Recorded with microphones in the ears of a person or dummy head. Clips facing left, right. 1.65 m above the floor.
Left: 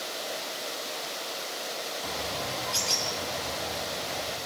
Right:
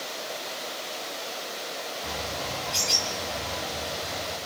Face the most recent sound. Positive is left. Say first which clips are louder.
# even
turn(degrees=0)  # may be behind; listen again after turning